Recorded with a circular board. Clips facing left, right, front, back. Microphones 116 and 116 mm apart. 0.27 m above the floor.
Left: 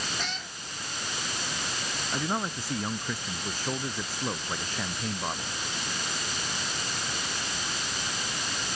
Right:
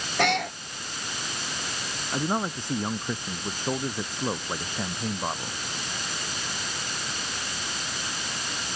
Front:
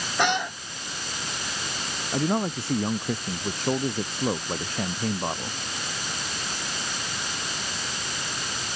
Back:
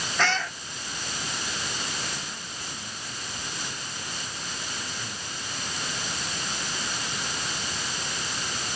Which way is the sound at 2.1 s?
20° right.